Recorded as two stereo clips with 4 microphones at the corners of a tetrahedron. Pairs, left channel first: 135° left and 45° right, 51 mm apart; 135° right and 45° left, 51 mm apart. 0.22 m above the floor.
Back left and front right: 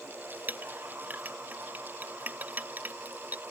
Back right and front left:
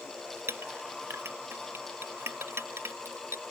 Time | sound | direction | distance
0.5 | a clink | 10° left | ?